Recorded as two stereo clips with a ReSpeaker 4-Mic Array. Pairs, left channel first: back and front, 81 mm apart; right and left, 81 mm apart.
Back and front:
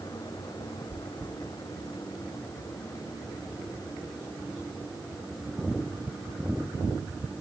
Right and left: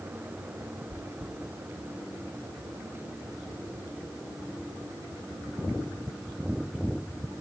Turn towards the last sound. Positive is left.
turn(degrees=65)